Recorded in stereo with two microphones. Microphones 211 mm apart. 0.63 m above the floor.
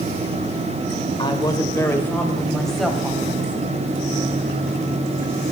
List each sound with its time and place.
1.2 s a woman speaking: 25° left (ahead or behind), 2.5 m; by 3.6 s 5° right (ahead or behind), 4 m